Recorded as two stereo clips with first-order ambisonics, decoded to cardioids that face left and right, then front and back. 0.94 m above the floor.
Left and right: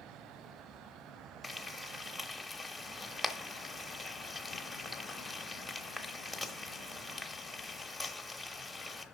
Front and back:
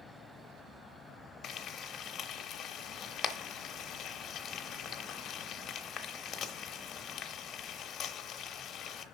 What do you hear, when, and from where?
1.4 s frying: straight ahead, 0.8 m